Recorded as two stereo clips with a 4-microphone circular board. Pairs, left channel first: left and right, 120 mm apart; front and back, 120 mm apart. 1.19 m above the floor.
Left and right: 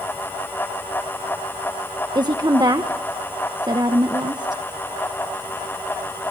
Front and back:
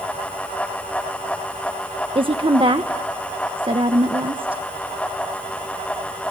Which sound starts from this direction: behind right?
A woman speaking, at 2.1 s.